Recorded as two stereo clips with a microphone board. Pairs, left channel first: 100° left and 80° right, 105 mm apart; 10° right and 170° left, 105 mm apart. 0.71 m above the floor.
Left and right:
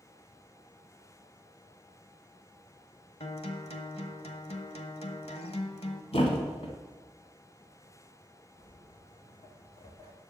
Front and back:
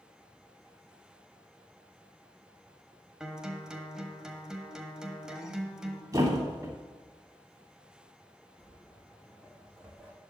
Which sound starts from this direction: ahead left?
Footsteps, at 8.6 s.